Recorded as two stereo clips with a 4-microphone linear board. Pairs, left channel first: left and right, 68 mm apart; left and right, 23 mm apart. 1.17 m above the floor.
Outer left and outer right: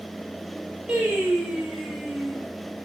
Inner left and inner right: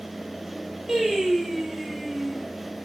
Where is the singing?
25° right (ahead or behind), 5.5 m.